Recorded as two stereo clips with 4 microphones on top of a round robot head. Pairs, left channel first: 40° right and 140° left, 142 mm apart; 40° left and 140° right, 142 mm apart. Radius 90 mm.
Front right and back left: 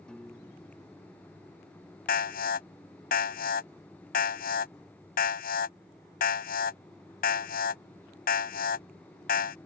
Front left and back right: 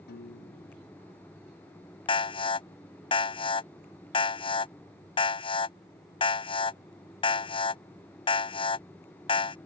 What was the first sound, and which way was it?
A piano, 45° left.